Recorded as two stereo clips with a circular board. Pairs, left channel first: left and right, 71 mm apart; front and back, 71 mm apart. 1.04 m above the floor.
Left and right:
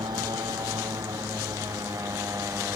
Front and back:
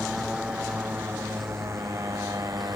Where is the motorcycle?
95° right; by 2.8 s 140° right.